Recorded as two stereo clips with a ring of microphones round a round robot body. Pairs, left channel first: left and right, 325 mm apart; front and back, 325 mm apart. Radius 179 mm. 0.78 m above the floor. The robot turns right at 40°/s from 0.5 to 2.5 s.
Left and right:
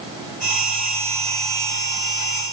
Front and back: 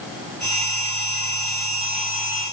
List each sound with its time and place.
Only background noise.